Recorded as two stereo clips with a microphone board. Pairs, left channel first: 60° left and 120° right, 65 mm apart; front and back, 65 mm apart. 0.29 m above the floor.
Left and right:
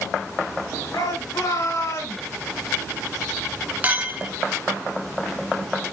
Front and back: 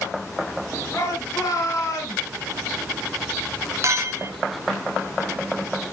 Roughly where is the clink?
Behind.